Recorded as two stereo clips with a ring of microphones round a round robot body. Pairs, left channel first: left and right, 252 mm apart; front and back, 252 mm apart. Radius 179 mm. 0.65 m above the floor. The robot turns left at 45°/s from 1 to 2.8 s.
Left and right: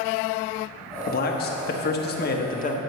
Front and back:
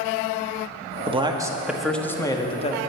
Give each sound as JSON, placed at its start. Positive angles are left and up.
{"t": 1.1, "sound": "a man speaking", "azimuth_deg": 125, "distance_m": 1.0}